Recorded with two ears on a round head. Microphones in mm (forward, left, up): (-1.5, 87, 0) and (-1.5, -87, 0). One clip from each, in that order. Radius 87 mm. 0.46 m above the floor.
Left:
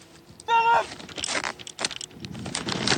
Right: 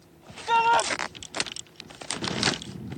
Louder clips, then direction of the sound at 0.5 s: Left 1 dB; centre (ahead or behind).